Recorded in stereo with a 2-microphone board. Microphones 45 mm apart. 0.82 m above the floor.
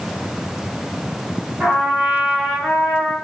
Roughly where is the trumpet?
Right.